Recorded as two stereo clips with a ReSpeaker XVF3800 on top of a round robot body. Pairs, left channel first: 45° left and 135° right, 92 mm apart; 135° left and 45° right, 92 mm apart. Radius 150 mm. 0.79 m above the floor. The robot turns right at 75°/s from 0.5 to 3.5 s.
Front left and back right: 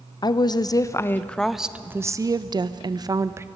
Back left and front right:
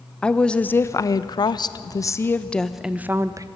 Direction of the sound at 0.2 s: 60° left.